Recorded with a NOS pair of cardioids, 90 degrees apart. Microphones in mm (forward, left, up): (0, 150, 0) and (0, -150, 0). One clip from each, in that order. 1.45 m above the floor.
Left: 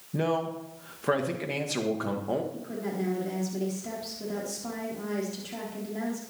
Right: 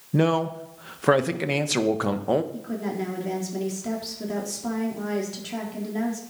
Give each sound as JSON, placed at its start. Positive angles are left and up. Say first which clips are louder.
{"t": 0.1, "sound": "a man speaking", "louder": "right 6 dB", "azimuth_deg": -40, "distance_m": 1.4}
{"t": 2.5, "sound": "a woman speaking", "louder": "right 3 dB", "azimuth_deg": -30, "distance_m": 4.0}